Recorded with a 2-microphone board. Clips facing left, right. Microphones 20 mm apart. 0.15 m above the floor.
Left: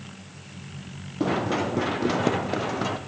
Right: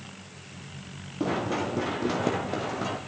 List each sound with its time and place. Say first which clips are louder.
1.2 s running footsteps: left 3 dB; 20° left (ahead or behind), 2.5 m; by 3.0 s 25° left (ahead or behind), 3.5 m